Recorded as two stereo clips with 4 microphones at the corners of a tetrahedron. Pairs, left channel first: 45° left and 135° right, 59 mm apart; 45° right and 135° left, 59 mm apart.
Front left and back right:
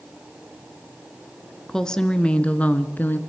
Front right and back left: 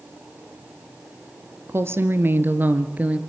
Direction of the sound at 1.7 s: 125° left.